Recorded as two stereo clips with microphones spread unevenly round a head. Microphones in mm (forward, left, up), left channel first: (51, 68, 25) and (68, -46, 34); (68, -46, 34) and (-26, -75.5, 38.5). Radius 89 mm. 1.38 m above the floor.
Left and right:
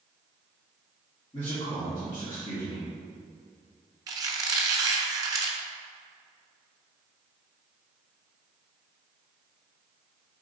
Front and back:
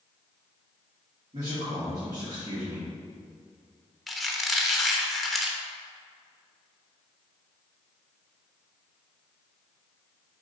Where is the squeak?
75° right, 0.5 m.